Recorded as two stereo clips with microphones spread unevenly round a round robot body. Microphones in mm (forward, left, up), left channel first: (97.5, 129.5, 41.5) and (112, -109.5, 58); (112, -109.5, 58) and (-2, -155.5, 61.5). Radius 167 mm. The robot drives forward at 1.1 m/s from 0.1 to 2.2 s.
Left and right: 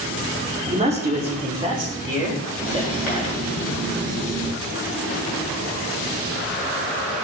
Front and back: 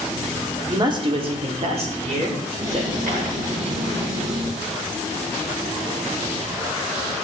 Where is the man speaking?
130° right, 1.6 m; by 3.3 s 165° right, 2.5 m.